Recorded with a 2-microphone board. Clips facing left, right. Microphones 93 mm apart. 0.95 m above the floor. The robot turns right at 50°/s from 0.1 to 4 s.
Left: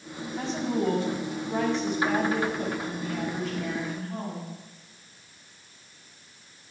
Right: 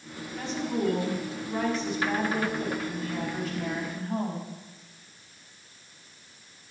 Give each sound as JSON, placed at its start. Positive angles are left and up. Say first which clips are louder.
{"t": 0.4, "sound": "a woman speaking", "louder": "left 1 dB", "azimuth_deg": 25, "distance_m": 5.0}